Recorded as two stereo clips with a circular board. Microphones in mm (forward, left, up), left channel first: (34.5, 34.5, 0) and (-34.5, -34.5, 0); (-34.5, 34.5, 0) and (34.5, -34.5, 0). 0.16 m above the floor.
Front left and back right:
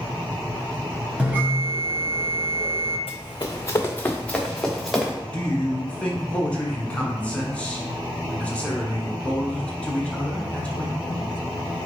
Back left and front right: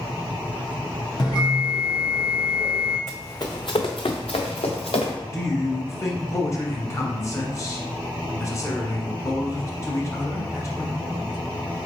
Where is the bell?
155° left, 2 m.